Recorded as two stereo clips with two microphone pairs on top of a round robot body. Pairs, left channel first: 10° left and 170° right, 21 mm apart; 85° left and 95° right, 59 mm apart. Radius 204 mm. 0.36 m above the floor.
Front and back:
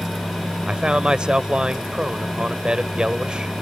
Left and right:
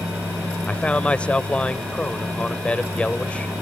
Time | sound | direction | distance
0.7 | a man speaking | 155° left | ?